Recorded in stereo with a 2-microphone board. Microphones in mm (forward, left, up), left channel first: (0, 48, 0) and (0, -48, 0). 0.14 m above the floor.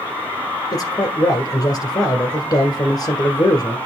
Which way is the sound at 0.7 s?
40° left (ahead or behind).